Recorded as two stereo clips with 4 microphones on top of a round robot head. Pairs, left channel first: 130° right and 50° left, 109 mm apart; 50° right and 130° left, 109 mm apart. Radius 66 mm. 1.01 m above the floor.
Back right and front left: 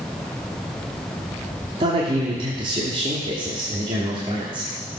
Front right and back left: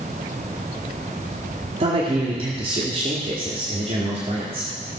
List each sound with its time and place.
1.8 s a man speaking: 90° left, 1.9 m